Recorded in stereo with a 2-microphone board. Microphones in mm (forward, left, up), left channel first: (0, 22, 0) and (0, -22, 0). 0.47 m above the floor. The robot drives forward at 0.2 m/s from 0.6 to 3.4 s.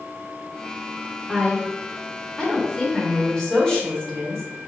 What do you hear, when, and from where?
1.3 s a woman speaking: 15° left (ahead or behind), 1.3 m; by 4.5 s 10° left (ahead or behind), 1.5 m